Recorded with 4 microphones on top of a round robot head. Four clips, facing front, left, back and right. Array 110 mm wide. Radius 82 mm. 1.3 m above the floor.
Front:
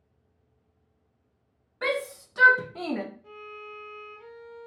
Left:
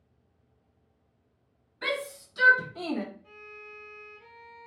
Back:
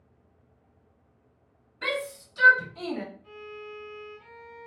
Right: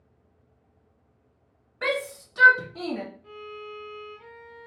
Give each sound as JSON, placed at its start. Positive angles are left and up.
{"t": 1.8, "sound": "a shout", "azimuth_deg": -50, "distance_m": 1.2}
{"t": 3.2, "sound": "a violin", "azimuth_deg": -55, "distance_m": 0.5}